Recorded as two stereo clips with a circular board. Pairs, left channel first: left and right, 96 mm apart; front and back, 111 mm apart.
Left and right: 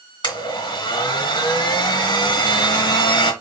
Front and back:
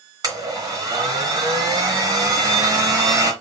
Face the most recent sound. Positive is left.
turn(degrees=125)